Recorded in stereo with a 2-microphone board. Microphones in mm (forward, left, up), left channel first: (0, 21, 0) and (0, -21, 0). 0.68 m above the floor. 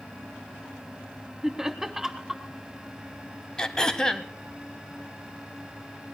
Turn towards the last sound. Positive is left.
turn(degrees=15)  # may be behind; listen again after turning